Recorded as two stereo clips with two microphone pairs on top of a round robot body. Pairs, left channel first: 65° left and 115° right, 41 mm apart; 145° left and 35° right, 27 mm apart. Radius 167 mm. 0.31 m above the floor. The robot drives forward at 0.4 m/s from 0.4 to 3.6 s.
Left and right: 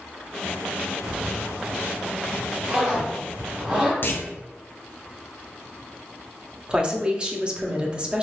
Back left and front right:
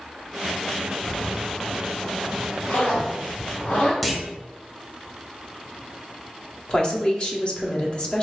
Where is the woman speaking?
170° right, 1.1 m.